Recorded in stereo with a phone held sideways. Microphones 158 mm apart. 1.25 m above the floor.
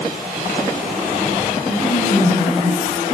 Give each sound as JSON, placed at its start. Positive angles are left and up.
{"t": 1.6, "sound": "a woman speaking", "side_deg": 85, "distance_m": 8.5}